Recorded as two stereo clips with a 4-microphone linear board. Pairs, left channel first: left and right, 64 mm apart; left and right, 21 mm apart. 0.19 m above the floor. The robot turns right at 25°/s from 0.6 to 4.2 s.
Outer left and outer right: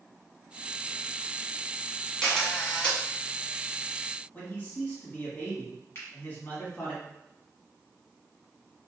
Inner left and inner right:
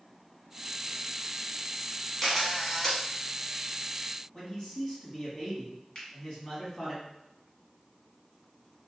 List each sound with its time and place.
2.2 s a camera shutter: 5° left (ahead or behind), 1.3 m; by 3.0 s 15° left (ahead or behind), 1.3 m
4.3 s a man speaking: 30° left (ahead or behind), 1.3 m
6.0 s a finger snap: 40° left (ahead or behind), 1.4 m